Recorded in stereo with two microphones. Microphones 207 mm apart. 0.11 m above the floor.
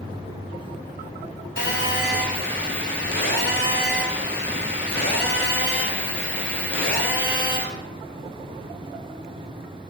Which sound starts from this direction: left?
A phone buzzing, at 1.6 s.